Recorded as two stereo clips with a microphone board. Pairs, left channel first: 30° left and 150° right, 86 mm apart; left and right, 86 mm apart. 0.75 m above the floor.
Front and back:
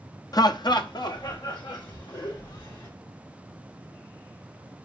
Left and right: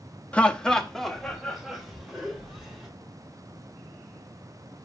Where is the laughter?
20° left, 0.6 m; by 2.9 s 5° right, 3.5 m.